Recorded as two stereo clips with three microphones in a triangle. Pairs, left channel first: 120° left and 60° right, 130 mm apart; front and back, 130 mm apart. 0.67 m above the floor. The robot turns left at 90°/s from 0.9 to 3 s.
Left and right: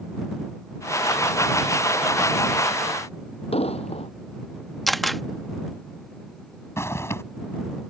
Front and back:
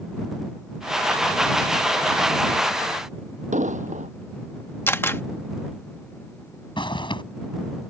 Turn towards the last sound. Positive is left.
turn(degrees=50)